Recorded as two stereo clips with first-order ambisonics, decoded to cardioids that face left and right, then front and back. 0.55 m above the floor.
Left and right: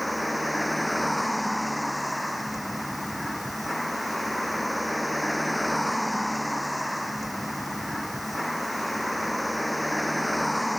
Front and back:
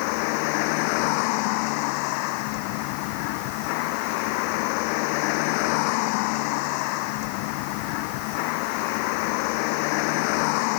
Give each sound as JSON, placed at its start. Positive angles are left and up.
{"t": 0.0, "sound": "a vehicle", "azimuth_deg": 0}